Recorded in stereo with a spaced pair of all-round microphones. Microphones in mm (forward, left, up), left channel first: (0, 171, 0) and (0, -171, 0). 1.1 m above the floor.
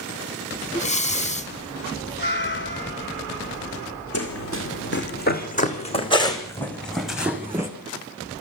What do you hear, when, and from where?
0.7 s breathing: 20° left (ahead or behind), 0.6 m
2.2 s a cat meowing: 35° left (ahead or behind), 3.5 m
4.1 s running footsteps: 45° left (ahead or behind), 3 m; by 7.7 s 10° right (ahead or behind), 3.5 m